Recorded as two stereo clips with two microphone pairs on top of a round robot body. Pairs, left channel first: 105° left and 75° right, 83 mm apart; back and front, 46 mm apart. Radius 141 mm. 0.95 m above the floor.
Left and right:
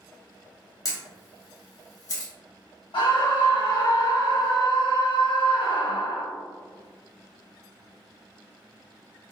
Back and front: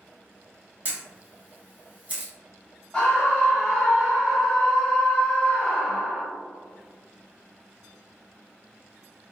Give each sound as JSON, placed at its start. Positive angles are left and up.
{"t": 0.8, "sound": "a camera shutter", "azimuth_deg": 65, "distance_m": 0.9}
{"t": 2.9, "sound": "a scream", "azimuth_deg": 115, "distance_m": 0.9}